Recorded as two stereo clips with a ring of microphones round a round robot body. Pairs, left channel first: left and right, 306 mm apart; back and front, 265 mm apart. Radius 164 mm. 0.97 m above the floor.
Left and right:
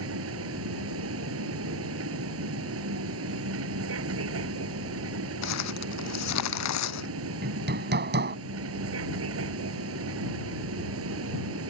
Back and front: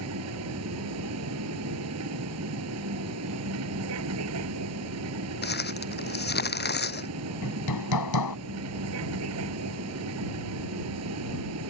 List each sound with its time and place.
0.0 s a vehicle: 40° right
5.4 s crumpling: 130° left
7.4 s hammering: 150° right